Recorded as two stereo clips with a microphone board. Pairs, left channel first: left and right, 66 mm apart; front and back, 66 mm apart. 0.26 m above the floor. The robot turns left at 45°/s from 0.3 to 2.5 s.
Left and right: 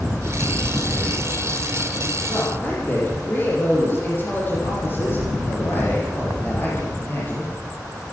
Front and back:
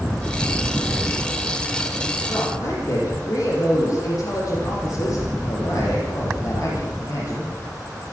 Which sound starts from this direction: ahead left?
A man speaking, at 2.3 s.